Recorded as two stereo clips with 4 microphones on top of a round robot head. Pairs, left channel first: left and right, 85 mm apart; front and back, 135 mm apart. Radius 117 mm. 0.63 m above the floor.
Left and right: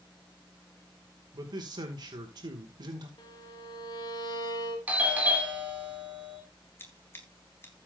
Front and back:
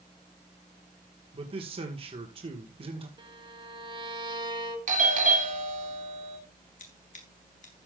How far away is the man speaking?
About 2 m.